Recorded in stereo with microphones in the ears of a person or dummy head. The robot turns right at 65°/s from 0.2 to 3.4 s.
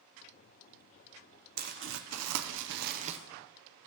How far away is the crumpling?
About 0.7 m.